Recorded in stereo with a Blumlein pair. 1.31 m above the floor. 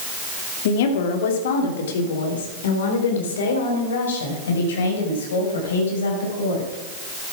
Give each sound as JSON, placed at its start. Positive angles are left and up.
{"t": 0.7, "sound": "a woman speaking", "azimuth_deg": 55, "distance_m": 2.5}